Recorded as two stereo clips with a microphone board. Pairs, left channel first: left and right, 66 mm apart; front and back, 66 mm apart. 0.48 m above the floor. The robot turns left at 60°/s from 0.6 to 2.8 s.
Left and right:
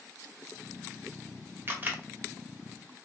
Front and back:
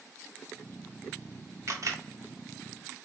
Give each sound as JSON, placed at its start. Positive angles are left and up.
{"t": 1.7, "sound": "a camera shutter", "azimuth_deg": -140, "distance_m": 0.9}